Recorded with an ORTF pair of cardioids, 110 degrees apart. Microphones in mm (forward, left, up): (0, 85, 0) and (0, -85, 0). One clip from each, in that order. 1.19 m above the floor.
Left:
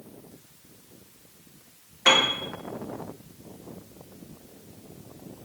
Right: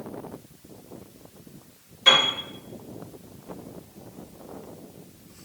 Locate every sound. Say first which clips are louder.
2.0 s a piano: right 2 dB; 50° left, 1.3 m